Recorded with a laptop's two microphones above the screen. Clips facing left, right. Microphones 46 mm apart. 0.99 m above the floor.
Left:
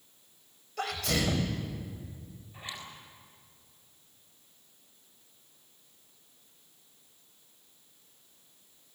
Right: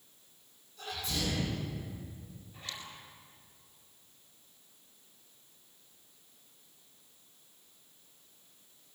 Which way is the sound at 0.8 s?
85° left.